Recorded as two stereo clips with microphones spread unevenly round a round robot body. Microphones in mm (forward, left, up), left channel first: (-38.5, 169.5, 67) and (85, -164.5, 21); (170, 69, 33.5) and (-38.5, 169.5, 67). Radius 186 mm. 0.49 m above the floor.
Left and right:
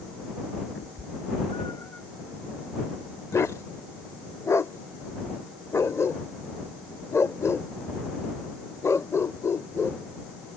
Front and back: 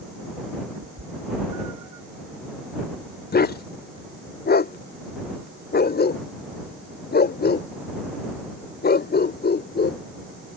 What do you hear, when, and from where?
0.8 s a cat meowing: 175° left; by 2.0 s 160° right
3.3 s a dog barking: 25° left